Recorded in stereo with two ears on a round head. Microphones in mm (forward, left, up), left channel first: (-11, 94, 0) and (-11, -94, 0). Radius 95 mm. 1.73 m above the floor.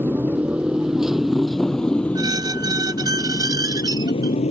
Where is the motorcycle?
10° right (ahead or behind); by 4.5 s 30° left (ahead or behind).